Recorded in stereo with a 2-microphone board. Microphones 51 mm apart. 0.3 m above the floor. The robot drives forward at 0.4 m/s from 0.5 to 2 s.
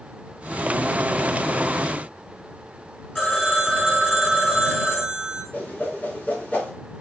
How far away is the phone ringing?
About 2.0 m.